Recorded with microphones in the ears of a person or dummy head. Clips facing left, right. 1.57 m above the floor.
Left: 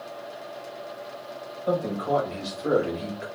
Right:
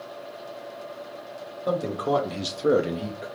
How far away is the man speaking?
About 1.3 m.